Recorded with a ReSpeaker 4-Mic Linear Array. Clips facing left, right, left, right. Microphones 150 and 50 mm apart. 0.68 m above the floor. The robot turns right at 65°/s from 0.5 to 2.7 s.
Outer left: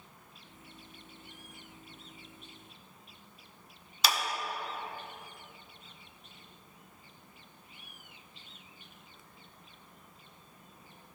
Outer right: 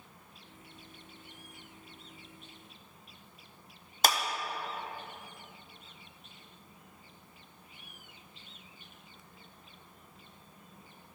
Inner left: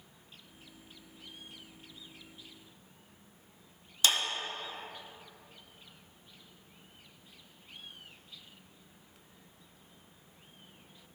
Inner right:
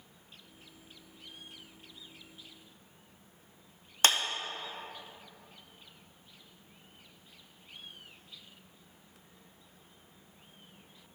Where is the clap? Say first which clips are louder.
Outer right 3 dB, inner right 2 dB; 50° right (ahead or behind), 0.7 m.